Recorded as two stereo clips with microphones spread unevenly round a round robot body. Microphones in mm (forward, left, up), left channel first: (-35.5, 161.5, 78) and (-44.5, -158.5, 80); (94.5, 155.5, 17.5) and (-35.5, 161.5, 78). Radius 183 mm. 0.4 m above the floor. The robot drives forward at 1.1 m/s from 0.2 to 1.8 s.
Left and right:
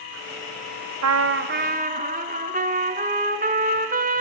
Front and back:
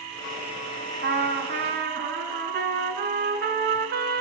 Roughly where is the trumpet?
Behind right.